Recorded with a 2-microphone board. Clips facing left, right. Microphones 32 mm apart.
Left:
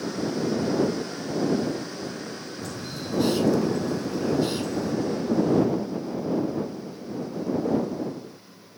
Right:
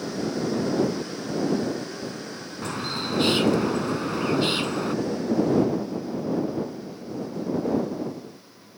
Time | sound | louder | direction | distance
2.6 | a bird | right 8 dB | 55° right (ahead or behind) | ?